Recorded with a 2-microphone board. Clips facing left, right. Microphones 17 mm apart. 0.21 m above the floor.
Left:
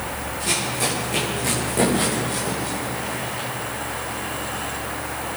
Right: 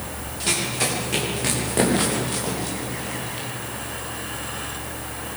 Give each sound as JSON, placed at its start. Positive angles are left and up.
{"t": 0.4, "sound": "running footsteps", "side_deg": -25, "distance_m": 8.5}